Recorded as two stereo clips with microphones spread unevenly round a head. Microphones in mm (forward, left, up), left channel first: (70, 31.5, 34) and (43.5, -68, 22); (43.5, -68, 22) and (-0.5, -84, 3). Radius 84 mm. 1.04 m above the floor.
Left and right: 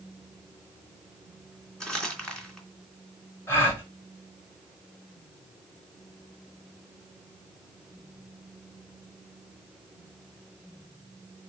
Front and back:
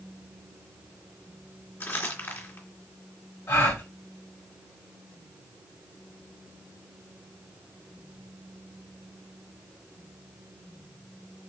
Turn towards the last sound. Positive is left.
turn(degrees=10)